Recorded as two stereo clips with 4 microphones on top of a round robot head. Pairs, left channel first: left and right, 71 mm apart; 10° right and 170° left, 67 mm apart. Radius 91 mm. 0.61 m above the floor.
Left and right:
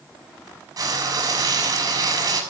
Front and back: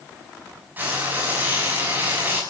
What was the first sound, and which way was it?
Frying, 125° right.